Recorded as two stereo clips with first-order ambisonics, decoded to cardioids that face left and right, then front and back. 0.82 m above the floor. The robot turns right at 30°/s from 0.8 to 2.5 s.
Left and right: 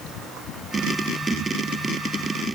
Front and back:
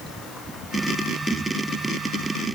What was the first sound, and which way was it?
Only background noise.